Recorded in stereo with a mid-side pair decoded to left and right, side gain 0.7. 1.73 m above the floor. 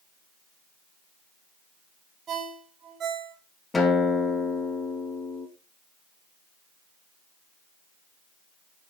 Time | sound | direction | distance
2.3 | a ringtone | 40° right | 5.5 m
3.7 | a guitar | 20° left | 7.5 m